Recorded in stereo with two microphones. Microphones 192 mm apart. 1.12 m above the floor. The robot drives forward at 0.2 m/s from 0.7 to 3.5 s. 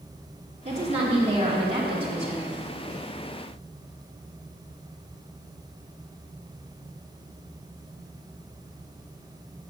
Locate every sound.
0.7 s a woman speaking: 35° right (ahead or behind), 2 m; by 2.6 s 30° right (ahead or behind), 2.5 m